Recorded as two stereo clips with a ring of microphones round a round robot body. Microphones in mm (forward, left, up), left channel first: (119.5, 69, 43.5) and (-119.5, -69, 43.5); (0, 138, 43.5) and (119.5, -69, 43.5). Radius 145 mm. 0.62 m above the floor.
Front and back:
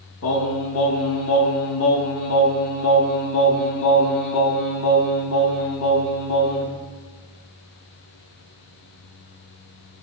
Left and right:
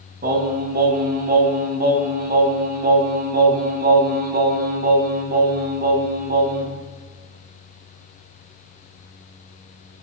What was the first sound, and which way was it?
Singing, 10° right.